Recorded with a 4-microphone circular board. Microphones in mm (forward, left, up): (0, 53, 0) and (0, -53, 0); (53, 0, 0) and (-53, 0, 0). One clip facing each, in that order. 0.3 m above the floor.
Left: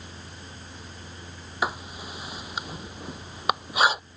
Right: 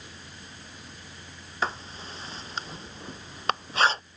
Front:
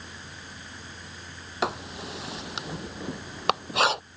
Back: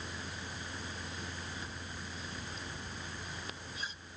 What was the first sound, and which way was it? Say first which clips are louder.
Writing: left 2 dB, front 14 dB; 10° left.